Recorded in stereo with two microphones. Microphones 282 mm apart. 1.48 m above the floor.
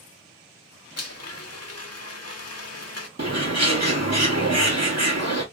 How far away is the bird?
About 1.5 m.